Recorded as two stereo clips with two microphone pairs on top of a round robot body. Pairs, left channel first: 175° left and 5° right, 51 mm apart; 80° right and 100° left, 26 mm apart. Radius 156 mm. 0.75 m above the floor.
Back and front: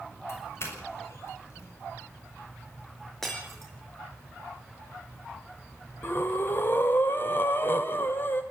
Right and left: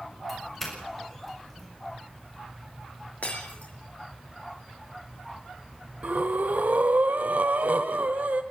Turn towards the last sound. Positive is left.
turn(degrees=125)